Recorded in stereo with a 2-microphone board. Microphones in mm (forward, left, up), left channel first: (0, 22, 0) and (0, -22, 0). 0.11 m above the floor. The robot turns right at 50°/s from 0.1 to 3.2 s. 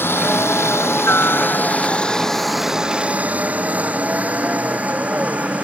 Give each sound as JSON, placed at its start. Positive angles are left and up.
{"t": 0.0, "sound": "a helicopter", "side_deg": 60}